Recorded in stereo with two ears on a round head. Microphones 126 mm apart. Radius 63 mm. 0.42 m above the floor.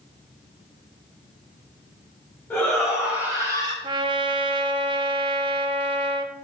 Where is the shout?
5° left (ahead or behind), 2.5 m; by 3.7 s 35° right (ahead or behind), 2 m.